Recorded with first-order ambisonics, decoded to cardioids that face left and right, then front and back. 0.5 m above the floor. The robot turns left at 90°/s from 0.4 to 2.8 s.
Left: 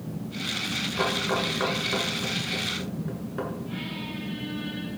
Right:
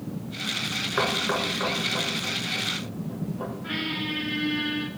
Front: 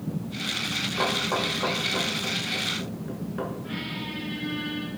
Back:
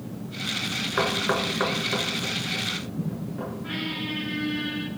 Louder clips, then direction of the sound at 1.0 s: Right 2 dB, back 2 dB; 135° right.